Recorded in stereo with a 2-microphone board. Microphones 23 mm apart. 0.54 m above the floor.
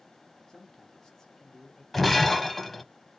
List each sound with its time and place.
0.5 s a man speaking: 20° left (ahead or behind), 1.2 m
1.9 s breaking glass: 5° left (ahead or behind), 0.6 m